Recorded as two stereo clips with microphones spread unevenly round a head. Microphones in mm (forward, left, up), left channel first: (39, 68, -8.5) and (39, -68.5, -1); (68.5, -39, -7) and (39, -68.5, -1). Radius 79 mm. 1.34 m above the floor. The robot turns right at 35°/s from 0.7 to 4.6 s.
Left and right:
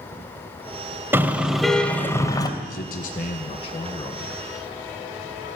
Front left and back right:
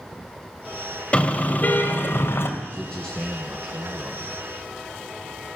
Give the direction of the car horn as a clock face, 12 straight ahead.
1 o'clock.